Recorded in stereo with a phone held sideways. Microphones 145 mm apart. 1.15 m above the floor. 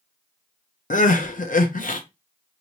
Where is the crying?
65° left (ahead or behind), 0.6 m.